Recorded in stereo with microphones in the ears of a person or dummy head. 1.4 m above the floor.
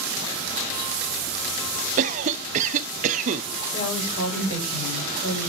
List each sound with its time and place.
2.0 s a cough: 40° right (ahead or behind), 0.6 m
3.7 s a woman speaking: 45° left (ahead or behind), 5 m